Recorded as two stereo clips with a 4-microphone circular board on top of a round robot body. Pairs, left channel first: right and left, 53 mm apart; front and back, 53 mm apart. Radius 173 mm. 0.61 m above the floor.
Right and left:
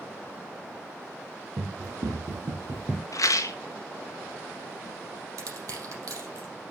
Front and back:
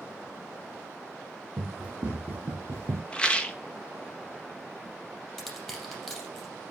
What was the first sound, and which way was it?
Running footsteps, 105° left.